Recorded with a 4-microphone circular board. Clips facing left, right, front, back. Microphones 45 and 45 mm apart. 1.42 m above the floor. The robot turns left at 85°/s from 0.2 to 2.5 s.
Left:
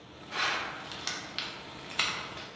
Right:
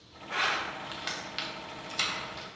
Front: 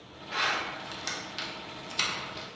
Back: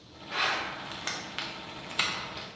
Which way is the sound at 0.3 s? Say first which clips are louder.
Right 2 dB, even; 95° right.